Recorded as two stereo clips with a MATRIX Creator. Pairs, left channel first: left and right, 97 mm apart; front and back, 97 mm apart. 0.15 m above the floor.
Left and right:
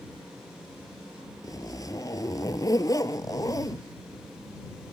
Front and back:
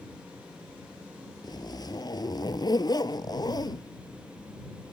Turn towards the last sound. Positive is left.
turn(degrees=40)